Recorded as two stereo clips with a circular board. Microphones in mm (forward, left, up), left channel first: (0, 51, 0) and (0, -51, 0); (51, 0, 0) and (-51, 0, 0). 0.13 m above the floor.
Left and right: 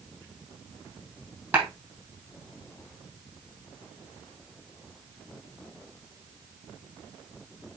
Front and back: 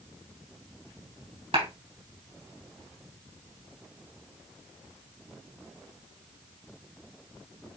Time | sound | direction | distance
1.5 | a clap | 165° right | 4 m